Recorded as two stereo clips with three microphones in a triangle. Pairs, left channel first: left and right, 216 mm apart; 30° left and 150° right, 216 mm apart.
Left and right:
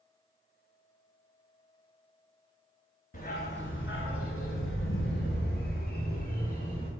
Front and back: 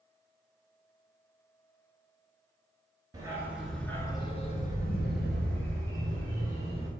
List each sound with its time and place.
3.1 s a dog barking: 140° left, 1.1 m; by 6.9 s 40° left, 2 m